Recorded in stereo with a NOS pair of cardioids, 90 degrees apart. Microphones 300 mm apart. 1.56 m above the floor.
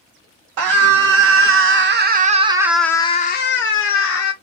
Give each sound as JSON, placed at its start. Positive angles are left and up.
{"t": 0.6, "sound": "a scream", "azimuth_deg": -65, "distance_m": 1.3}